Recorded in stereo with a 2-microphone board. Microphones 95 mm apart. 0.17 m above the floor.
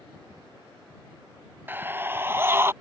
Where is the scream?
20° right (ahead or behind); by 2.7 s 25° right (ahead or behind).